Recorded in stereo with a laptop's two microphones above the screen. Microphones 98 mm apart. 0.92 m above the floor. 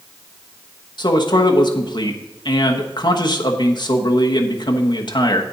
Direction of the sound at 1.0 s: 50° left (ahead or behind).